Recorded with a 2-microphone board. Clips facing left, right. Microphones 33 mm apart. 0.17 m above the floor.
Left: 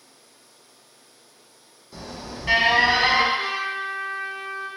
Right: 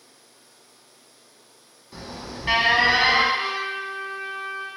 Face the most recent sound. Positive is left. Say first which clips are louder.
# left 1 dB
turn(degrees=-40)  # may be behind; listen again after turning